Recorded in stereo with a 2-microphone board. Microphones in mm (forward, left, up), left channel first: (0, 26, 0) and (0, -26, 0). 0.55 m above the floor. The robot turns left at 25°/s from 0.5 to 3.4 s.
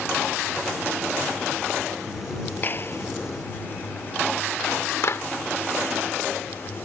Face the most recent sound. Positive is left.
turn(degrees=60)  # may be behind; listen again after turning